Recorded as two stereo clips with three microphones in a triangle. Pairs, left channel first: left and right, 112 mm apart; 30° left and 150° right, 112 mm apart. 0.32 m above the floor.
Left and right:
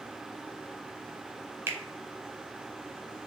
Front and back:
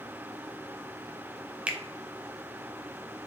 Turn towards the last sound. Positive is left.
turn(degrees=-90)